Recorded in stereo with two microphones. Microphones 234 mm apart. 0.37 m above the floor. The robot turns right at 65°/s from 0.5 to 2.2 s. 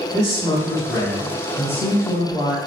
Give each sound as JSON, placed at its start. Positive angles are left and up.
{"t": 0.1, "sound": "a man speaking", "side_deg": -15, "distance_m": 0.8}